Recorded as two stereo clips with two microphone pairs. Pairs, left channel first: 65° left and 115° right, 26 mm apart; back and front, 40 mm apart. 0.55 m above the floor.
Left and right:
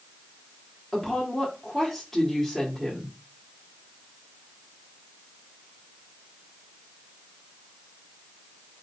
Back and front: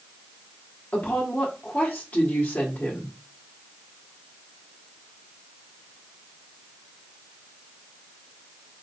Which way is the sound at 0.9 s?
155° left.